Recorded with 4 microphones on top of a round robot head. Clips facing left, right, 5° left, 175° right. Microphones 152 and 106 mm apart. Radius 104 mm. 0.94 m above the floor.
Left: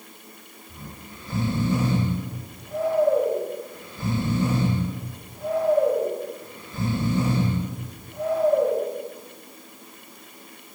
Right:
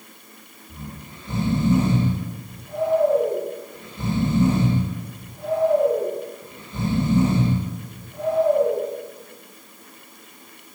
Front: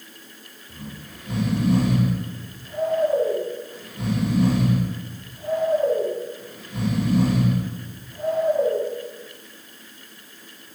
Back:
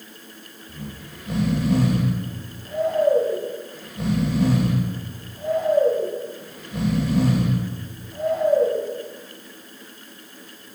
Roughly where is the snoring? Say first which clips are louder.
Right 4 dB, back 1 dB; behind.